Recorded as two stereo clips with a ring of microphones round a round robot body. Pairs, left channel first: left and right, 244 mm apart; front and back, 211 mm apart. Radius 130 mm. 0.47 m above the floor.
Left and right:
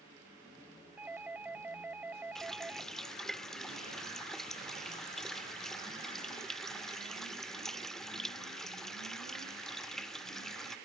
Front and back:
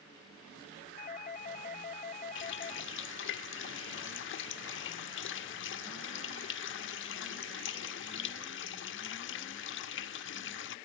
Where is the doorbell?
10° right.